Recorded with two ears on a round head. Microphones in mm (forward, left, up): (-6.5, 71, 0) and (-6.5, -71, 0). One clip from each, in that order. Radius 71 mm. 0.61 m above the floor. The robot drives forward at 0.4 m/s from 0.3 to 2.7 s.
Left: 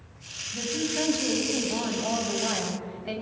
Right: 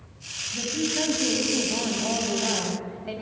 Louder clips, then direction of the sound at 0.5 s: Right 1 dB; 20° left (ahead or behind).